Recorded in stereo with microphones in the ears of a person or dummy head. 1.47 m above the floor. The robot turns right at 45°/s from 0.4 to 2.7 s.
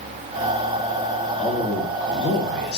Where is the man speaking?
5° left, 1.4 m; by 2.8 s 65° left, 1.4 m.